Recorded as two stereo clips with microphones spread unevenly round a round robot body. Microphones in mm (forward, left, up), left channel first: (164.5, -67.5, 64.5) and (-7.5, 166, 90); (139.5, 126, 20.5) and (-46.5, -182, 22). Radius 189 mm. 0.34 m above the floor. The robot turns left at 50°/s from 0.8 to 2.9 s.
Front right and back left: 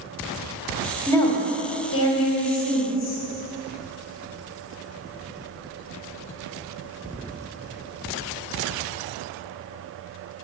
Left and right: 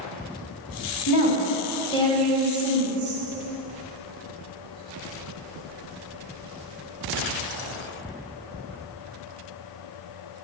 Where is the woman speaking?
30° left, 2.5 m; by 3.2 s 60° right, 2.5 m.